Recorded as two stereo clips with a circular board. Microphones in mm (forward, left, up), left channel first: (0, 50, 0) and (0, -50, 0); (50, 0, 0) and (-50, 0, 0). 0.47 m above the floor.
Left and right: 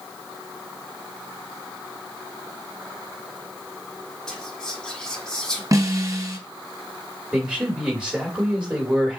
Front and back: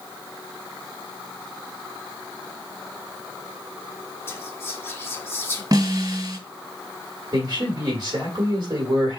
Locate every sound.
4.3 s whispering: 15° left, 1.1 m
5.7 s a snare drum: 145° right, 1.9 m
7.3 s a man speaking: 170° right, 1.7 m